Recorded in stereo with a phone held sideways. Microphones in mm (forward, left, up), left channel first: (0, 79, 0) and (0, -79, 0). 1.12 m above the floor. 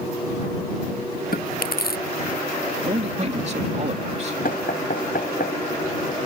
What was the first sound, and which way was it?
Chewing, 75° left (ahead or behind).